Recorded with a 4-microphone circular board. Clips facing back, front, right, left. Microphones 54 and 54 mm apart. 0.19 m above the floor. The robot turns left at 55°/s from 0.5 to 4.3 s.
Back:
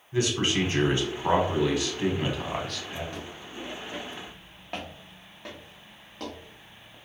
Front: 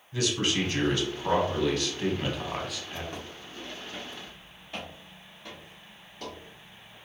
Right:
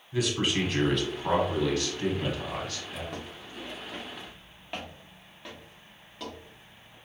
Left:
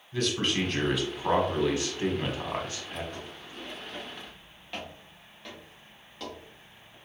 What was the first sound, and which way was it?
A man speaking, 165° right.